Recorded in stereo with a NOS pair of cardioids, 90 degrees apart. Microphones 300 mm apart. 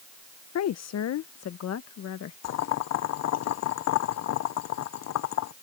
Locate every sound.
0.6 s a woman speaking: 55° left; by 2.3 s 50° left
2.4 s boiling: 55° left